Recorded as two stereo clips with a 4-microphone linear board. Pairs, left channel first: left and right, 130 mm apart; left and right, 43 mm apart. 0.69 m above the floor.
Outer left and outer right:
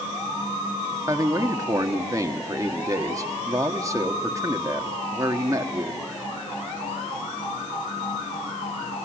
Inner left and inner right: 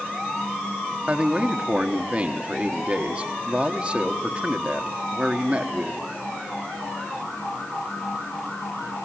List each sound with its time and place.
1.1 s a man speaking: 25° right (ahead or behind), 1.6 m